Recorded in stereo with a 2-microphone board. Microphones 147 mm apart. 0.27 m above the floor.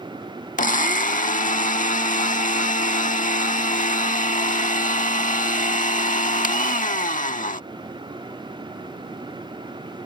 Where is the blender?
60° left (ahead or behind).